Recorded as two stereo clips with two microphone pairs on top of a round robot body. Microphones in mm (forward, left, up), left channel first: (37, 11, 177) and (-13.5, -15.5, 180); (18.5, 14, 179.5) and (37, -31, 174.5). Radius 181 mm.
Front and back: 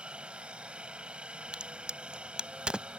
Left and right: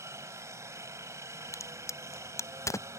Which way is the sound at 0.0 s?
80° right.